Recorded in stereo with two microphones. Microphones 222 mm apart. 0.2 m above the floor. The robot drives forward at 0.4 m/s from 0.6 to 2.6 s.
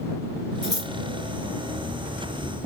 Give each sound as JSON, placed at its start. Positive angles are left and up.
{"t": 0.6, "sound": "scissors", "side_deg": -45, "distance_m": 2.5}